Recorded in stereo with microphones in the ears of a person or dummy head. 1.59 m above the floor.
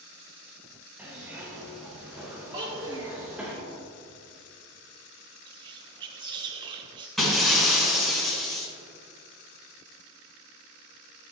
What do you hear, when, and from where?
1.0 s a zipper: 5° right (ahead or behind), 1.3 m
2.5 s a child speaking: 25° right (ahead or behind), 1.5 m
5.5 s whispering: 25° right (ahead or behind), 0.6 m
7.2 s breaking glass: 5° left (ahead or behind), 2 m